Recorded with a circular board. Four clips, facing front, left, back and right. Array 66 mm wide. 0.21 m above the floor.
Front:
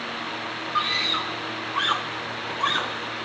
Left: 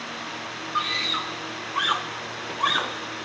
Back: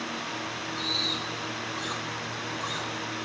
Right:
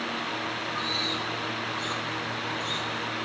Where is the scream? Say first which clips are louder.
Left 4 dB, front 11 dB; 35° left; by 3.3 s 60° left.